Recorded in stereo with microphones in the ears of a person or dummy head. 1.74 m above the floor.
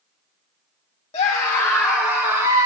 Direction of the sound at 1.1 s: 25° left (ahead or behind).